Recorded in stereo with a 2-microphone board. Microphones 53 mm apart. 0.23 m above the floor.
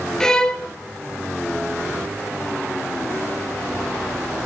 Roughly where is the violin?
Centre.